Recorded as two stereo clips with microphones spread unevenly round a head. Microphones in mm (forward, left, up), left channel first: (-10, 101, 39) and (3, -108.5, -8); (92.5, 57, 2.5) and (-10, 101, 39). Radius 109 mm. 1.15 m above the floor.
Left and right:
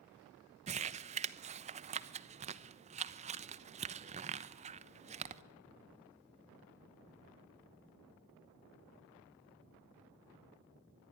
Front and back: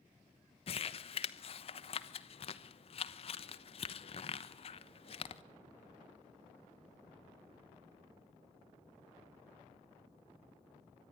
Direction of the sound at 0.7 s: 35° right.